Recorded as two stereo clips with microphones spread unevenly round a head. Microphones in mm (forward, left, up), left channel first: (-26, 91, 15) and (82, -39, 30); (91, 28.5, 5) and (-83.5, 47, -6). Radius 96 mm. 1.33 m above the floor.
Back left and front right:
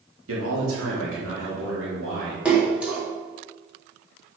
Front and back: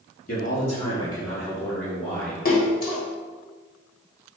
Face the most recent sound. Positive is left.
turn(degrees=35)